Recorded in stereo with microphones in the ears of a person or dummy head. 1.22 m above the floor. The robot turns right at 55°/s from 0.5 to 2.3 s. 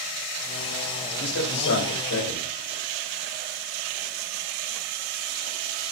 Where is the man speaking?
60° left, 5 m; by 2.5 s 125° left, 5 m.